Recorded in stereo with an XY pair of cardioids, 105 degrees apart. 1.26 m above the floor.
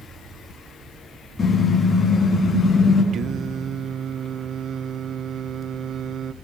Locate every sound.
1.4 s a car horn: 35° left, 6.5 m; by 3.0 s 40° left, 9 m
3.1 s singing: 60° right, 0.6 m